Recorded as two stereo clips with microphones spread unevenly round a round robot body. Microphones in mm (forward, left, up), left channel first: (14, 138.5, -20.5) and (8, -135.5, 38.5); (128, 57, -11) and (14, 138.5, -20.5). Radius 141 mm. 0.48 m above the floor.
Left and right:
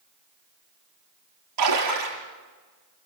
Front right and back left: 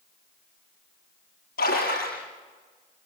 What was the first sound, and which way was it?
A splash, 65° right.